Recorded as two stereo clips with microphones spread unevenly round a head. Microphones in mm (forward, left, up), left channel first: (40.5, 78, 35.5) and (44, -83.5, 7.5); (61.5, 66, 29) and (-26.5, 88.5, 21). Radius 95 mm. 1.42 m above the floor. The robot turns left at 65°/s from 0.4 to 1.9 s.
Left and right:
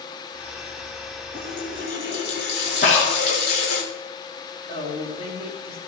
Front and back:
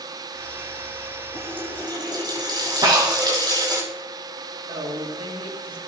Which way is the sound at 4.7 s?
150° left.